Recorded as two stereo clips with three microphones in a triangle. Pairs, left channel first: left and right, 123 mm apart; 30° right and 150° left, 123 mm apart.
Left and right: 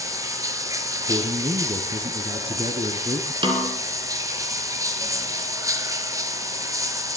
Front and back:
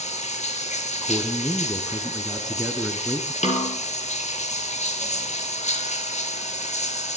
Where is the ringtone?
I don't hear a ringtone.